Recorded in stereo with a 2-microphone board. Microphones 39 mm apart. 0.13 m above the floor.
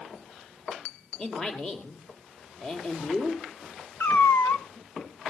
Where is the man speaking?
20° left (ahead or behind), 3.5 m.